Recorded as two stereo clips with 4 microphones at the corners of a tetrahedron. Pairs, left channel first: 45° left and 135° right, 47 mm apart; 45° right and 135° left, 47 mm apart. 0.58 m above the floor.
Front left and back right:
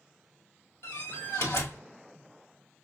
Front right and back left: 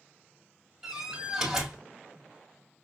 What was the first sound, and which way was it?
A door slam, 55° left.